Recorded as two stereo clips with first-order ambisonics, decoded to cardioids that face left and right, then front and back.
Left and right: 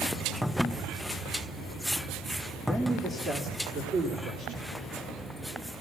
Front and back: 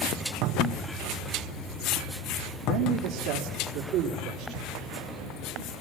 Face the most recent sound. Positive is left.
turn(degrees=-135)